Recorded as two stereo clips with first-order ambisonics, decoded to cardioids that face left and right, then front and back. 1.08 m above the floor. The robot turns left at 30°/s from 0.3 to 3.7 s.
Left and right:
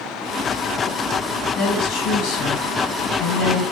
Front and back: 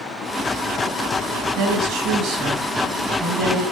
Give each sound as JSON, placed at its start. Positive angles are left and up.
{"t": 1.6, "sound": "a woman speaking", "azimuth_deg": 145, "distance_m": 8.5}